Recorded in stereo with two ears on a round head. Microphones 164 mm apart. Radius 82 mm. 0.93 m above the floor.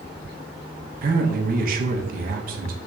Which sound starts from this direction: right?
A man speaking, at 1.0 s.